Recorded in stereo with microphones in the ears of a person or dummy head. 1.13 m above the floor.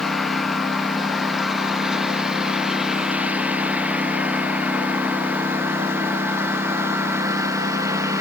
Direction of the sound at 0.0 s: 5° left (ahead or behind).